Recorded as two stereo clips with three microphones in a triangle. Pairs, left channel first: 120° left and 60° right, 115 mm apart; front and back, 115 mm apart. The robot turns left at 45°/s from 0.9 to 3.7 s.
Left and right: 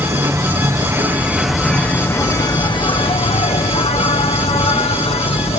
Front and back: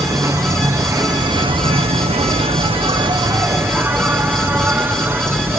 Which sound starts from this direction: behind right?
An insect, at 0.0 s.